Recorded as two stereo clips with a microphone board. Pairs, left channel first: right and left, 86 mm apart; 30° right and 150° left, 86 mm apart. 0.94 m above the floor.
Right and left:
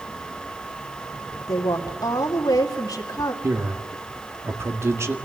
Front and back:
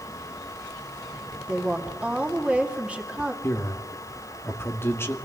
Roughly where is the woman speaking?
Behind right.